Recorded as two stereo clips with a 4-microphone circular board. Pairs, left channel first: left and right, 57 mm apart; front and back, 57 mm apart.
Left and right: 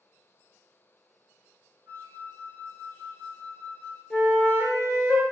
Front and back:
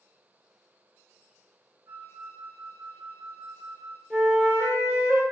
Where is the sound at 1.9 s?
145° right, 1.2 m.